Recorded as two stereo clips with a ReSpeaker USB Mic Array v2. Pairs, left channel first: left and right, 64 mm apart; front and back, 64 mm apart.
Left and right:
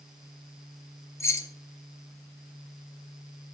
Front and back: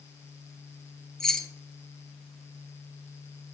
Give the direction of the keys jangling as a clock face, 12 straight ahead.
9 o'clock.